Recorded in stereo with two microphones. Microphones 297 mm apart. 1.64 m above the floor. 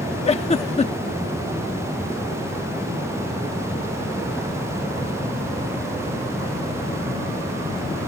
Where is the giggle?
25° left (ahead or behind).